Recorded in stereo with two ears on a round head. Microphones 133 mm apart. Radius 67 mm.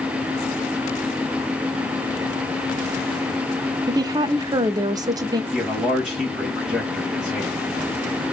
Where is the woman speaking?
25° right (ahead or behind), 0.6 m.